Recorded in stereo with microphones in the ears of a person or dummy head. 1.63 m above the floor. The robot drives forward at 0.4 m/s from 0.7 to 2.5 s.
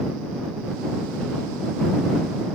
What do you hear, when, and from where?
Only background noise.